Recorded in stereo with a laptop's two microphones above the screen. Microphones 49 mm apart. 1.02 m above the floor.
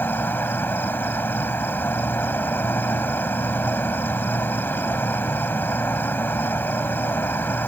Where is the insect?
45° left (ahead or behind).